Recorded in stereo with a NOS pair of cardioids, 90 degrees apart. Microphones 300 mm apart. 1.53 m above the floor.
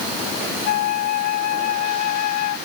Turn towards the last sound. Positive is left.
turn(degrees=60)